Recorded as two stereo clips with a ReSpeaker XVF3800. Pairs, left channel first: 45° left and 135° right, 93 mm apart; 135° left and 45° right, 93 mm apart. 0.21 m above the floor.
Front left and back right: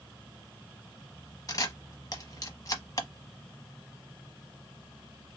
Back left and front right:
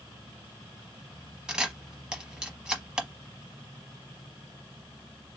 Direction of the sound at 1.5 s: 30° left.